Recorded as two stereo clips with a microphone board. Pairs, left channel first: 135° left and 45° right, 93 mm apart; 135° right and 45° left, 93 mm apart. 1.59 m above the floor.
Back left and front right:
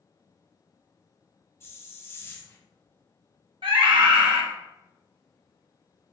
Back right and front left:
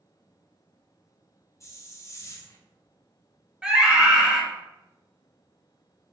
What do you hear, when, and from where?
1.6 s a hiss: 175° right, 0.5 m
3.6 s a scream: 35° right, 1.0 m